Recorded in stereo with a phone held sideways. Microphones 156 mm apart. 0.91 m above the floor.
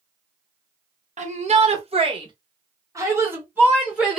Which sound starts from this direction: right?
A shout, at 1.2 s.